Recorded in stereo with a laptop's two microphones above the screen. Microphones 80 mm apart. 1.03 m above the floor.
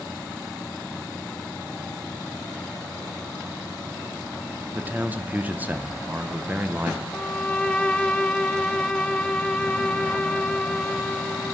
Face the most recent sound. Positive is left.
turn(degrees=15)  # may be behind; listen again after turning